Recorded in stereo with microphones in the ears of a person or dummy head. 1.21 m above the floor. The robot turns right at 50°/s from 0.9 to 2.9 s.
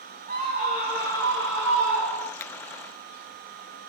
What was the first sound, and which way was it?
A scream, 140° right.